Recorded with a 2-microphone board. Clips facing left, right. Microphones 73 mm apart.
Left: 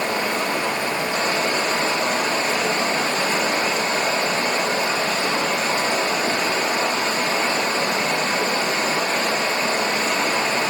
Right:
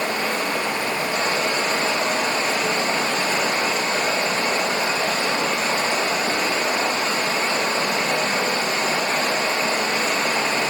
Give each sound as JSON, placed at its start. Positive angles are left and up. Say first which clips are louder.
{"t": 0.0, "sound": "running water", "louder": "left 1 dB", "side_deg": 30, "distance_m": 3.0}